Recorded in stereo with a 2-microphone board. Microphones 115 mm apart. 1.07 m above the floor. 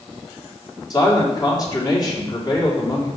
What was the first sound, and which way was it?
A man speaking, 35° left (ahead or behind).